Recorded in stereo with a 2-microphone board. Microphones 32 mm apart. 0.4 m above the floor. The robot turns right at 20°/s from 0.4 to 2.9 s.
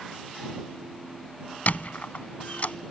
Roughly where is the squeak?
Left.